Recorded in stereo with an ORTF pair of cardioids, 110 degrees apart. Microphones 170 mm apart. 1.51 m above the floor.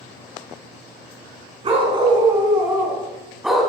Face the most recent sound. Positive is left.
turn(degrees=5)